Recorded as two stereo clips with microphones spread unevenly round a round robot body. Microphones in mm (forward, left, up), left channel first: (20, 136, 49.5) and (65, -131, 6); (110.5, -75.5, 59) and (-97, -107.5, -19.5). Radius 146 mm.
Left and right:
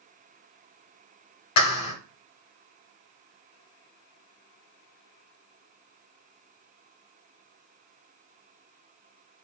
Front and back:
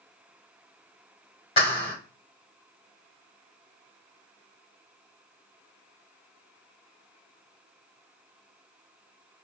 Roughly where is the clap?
Left.